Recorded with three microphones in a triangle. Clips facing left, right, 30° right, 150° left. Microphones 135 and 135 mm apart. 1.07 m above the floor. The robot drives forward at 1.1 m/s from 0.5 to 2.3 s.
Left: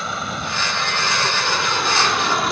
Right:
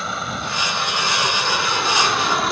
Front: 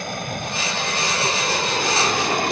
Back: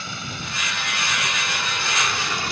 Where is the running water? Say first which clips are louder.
Even, front 6 dB; straight ahead.